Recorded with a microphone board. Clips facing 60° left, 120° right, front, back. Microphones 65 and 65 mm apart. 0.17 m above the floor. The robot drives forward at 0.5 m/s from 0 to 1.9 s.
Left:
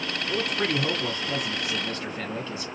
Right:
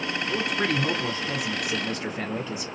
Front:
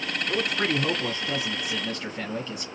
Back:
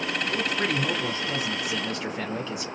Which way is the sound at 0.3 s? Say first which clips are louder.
Even, front 3 dB; 30° right.